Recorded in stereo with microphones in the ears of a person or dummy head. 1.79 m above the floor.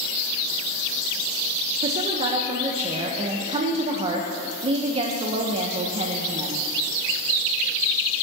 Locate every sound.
1.8 s a woman speaking: 35° right (ahead or behind), 1.3 m